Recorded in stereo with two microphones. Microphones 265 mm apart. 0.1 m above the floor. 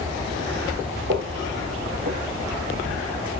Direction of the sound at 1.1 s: 45° right (ahead or behind).